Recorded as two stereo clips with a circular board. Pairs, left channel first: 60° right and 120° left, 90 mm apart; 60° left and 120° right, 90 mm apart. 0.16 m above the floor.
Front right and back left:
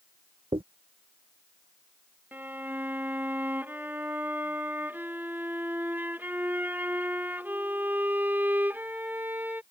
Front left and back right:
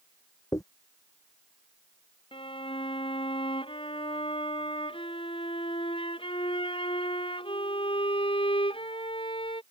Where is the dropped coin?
110° left.